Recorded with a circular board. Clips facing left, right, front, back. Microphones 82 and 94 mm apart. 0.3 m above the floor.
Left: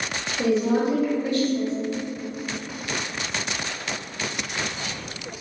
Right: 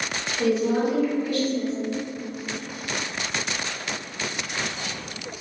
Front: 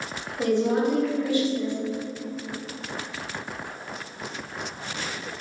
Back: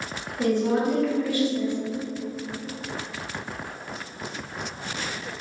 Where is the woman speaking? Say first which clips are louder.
Left 1 dB, even; 55° left, 1.6 m.